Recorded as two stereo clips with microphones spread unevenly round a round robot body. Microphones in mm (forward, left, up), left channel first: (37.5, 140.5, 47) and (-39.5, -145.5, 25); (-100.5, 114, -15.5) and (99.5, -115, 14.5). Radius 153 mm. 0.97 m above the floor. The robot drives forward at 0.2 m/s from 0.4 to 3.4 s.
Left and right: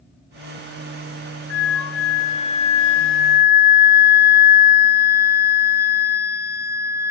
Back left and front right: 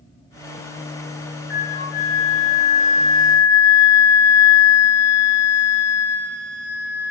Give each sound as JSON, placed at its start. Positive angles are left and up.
{"t": 1.5, "sound": "a flute", "azimuth_deg": 95, "distance_m": 0.7}